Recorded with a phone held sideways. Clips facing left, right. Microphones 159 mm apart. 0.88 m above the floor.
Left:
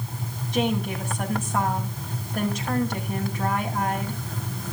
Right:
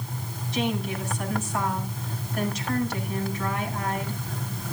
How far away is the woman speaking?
About 6 m.